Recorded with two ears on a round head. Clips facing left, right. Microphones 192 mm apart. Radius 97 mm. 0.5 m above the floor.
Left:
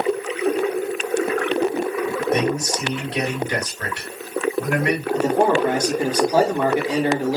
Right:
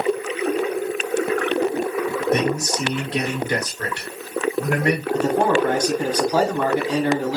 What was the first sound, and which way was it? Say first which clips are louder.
A man speaking: right 1 dB; 30° right (ahead or behind).